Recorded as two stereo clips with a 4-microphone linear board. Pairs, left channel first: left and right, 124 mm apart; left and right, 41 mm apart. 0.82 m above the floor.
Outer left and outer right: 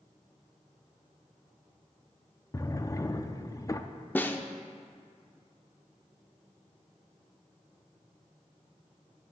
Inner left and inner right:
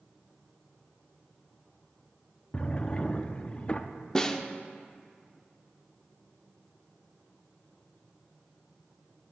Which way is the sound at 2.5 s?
30° left (ahead or behind).